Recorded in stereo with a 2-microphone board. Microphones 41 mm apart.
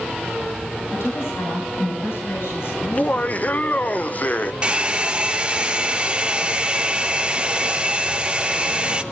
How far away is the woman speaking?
About 9.5 m.